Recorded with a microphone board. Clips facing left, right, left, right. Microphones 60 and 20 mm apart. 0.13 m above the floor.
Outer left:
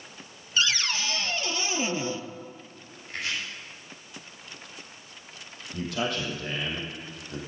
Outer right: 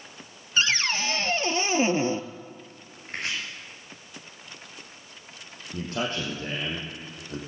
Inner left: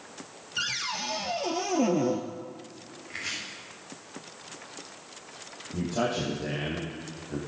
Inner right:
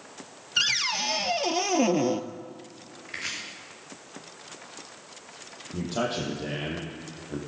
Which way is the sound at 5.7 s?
30° right (ahead or behind).